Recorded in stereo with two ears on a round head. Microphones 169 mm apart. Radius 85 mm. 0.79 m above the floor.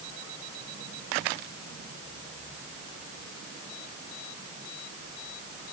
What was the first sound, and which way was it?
Only background noise.